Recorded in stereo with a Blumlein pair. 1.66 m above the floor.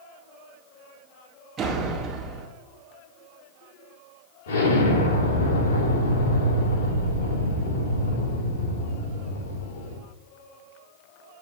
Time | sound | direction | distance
1.6 | a door slam | 25° right | 2 m
4.5 | an explosion | 65° left | 3 m